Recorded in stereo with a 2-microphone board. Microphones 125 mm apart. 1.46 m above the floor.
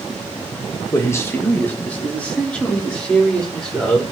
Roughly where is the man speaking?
Left.